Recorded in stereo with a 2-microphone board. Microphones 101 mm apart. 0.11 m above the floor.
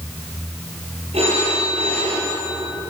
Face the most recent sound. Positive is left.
turn(degrees=-80)